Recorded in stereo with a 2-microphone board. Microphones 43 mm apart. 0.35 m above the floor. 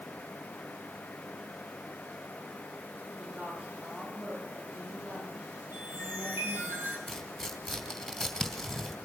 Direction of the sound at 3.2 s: 65° right (ahead or behind).